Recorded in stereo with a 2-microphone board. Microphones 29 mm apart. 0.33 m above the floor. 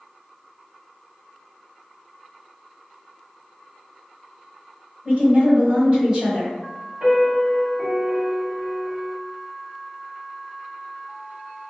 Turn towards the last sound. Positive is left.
turn(degrees=-55)  # may be behind; listen again after turning